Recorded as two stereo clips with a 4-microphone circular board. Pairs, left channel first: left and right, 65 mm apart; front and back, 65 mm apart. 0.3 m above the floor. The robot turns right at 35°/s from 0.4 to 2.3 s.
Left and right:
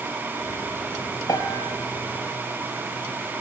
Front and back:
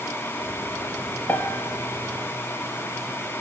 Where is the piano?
60° left, 2.0 m; by 1.7 s 75° left, 2.0 m.